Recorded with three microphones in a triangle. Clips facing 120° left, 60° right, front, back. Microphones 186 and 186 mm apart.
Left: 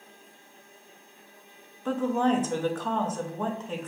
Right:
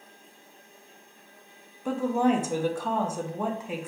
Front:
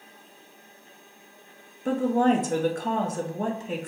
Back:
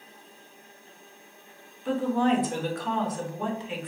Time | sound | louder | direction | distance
1.9 | a woman speaking | right 1 dB, front 2 dB | 20° left | 0.5 m